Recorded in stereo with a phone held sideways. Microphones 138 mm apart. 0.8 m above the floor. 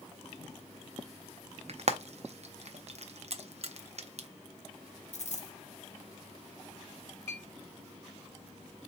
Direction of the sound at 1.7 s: 60° right (ahead or behind).